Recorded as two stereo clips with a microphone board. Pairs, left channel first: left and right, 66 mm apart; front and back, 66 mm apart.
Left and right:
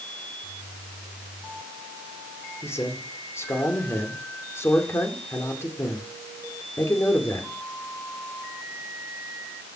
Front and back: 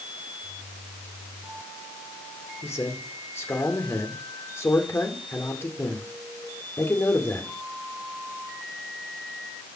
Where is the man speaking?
45° left, 2.5 m.